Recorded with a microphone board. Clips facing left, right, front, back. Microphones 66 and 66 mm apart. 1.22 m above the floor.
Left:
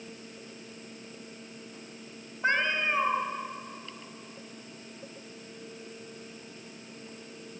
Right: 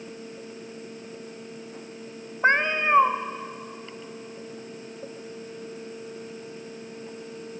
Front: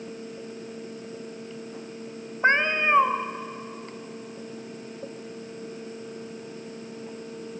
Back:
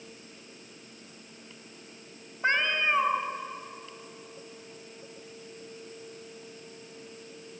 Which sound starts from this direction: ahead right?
A cat meowing, at 2.4 s.